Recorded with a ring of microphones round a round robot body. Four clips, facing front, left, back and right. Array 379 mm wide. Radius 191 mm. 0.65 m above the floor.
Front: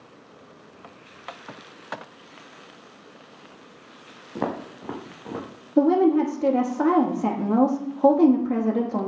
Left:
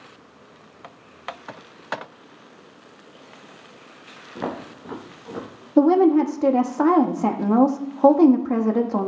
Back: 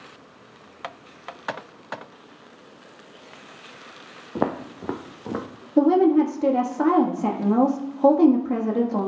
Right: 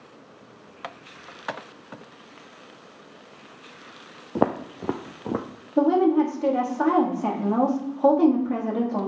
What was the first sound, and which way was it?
Footsteps, 115° right.